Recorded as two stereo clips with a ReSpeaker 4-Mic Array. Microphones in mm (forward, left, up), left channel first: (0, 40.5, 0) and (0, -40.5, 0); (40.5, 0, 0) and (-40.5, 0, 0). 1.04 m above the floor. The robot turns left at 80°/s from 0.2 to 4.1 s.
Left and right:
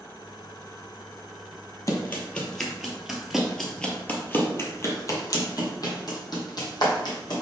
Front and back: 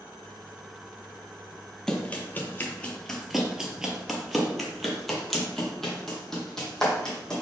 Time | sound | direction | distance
1.9 | running footsteps | 75° left | 1.2 m